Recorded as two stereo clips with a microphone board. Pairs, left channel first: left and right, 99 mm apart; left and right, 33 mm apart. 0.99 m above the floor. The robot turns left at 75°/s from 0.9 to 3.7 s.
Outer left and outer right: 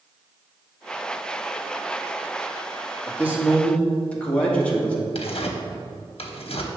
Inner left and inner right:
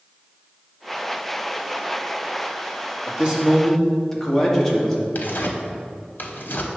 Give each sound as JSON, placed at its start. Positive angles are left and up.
{"t": 3.1, "sound": "a man speaking", "azimuth_deg": -145, "distance_m": 1.5}
{"t": 5.2, "sound": "tearing paper", "side_deg": 70, "distance_m": 0.9}